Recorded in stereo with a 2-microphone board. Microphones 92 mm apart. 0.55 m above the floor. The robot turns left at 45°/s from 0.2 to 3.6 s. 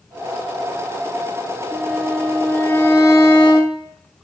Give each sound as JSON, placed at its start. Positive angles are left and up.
{"t": 1.7, "sound": "a violin", "azimuth_deg": -165, "distance_m": 1.1}